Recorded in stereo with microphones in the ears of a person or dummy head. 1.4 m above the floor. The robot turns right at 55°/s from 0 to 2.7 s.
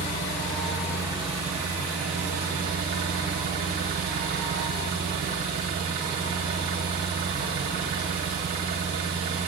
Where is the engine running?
140° left, 1.3 m; by 9.5 s 70° right, 1.3 m.